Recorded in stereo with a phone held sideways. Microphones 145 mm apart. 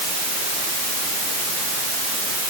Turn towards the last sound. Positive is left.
No sound to turn to.